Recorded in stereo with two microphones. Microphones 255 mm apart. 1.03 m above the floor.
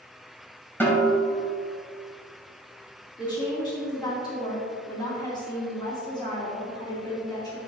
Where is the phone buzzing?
I don't hear a phone buzzing.